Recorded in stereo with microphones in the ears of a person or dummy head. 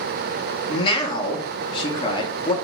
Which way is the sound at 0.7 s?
30° left (ahead or behind).